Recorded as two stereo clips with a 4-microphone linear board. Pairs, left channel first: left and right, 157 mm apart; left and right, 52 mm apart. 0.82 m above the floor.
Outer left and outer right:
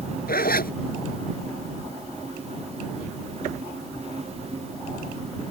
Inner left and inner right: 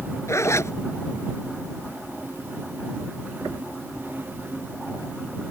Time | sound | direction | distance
0.3 | a zipper | 70° left (ahead or behind) | ?